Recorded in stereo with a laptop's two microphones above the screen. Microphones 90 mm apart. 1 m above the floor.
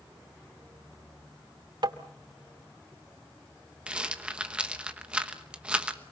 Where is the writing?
No writing in this recording.